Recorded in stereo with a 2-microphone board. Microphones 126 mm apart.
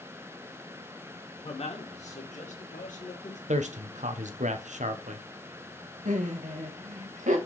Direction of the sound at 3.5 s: 70° right (ahead or behind).